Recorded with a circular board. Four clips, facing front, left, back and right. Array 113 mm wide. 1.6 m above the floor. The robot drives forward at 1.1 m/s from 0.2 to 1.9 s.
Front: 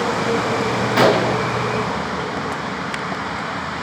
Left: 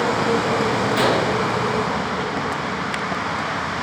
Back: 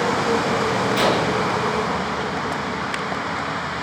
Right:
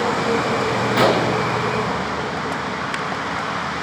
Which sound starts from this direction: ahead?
A gunshot, at 1.0 s.